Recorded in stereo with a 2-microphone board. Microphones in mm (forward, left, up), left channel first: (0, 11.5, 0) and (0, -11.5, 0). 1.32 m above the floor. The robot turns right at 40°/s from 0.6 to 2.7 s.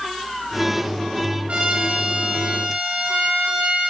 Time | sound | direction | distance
1.5 | a trumpet | 100° right | 5.5 m